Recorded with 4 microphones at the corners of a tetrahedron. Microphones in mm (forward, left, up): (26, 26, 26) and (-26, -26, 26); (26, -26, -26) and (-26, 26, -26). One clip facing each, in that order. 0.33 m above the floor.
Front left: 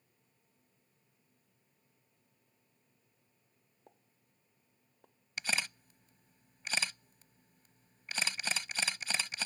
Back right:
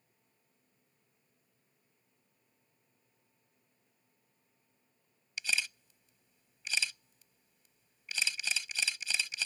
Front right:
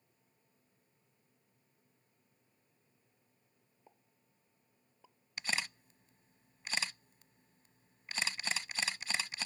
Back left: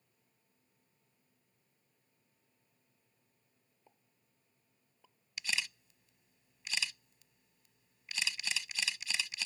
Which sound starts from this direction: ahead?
A camera shutter, at 5.4 s.